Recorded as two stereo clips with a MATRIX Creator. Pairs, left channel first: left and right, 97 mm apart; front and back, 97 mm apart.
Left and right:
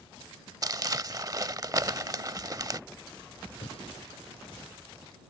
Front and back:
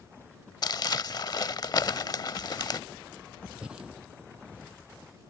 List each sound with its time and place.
0.6 s crumpling: 40° right
3.6 s breathing: 100° left